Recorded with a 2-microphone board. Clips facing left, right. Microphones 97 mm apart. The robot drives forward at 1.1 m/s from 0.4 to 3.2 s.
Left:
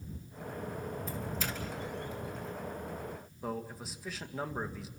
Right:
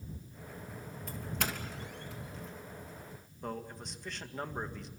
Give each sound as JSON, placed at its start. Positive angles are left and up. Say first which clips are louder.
{"t": 1.1, "sound": "a doorbell", "louder": "left 1 dB", "side_deg": -60, "distance_m": 3.0}
{"t": 3.4, "sound": "a man speaking", "louder": "left 2 dB", "side_deg": 5, "distance_m": 1.9}